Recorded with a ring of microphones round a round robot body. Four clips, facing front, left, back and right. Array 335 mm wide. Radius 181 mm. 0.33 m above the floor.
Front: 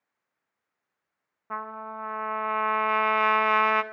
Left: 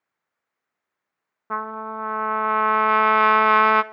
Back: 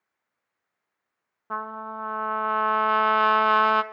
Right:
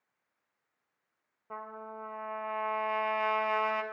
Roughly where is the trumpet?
Left.